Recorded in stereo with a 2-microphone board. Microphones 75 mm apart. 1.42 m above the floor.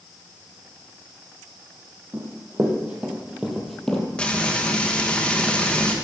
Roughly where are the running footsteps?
Right.